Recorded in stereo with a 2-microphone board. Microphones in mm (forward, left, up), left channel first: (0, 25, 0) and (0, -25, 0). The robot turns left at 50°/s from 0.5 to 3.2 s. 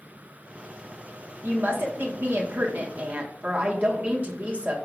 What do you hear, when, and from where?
1.4 s a woman speaking: 55° right, 1.6 m; by 4.8 s 145° right, 1.6 m